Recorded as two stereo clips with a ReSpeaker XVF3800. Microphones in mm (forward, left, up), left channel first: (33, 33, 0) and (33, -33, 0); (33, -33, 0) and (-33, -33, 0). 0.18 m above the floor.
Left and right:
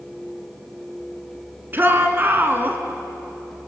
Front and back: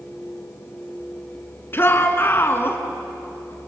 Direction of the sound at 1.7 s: 45° right.